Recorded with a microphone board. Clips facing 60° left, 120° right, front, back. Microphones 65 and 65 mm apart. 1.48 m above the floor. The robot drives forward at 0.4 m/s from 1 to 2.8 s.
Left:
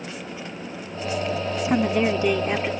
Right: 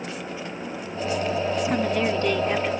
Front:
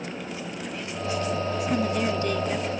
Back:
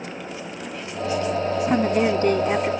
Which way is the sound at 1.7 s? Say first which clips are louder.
Left 6 dB, back 6 dB; 135° left.